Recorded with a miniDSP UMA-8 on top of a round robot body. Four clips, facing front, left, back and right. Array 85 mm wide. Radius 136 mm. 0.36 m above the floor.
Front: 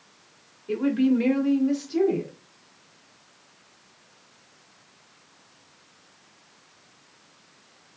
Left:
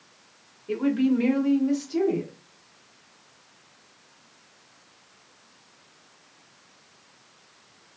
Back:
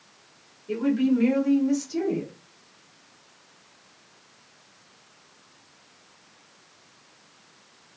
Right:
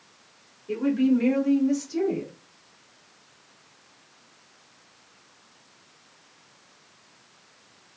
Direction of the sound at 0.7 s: 40° left.